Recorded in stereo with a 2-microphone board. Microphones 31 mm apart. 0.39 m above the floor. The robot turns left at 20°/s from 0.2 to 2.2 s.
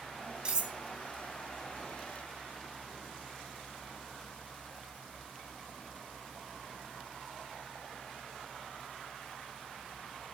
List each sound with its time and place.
0.5 s cutlery clinking: 35° right (ahead or behind), 0.8 m; by 0.8 s 40° right (ahead or behind), 0.8 m